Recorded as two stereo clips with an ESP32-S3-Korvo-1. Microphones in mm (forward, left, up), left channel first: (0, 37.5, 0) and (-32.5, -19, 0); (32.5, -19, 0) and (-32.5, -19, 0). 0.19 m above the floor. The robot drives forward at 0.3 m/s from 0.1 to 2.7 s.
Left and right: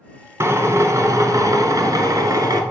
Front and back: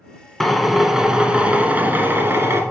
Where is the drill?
85° right, 0.8 m; by 2.6 s 130° right, 1.0 m.